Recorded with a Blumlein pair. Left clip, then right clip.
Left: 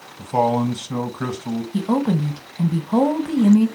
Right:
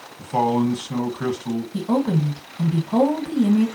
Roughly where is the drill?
No drill in this recording.